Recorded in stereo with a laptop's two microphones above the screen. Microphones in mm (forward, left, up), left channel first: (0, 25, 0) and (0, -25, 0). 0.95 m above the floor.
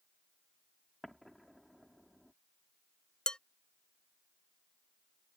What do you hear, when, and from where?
1.0 s an explosion: 5° left (ahead or behind)
3.3 s dishes clattering: 15° left (ahead or behind)